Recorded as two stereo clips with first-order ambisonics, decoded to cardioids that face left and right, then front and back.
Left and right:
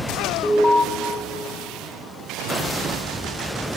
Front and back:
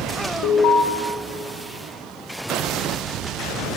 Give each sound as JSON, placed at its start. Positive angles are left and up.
{"t": 0.4, "sound": "an alarm", "azimuth_deg": 15, "distance_m": 2.5}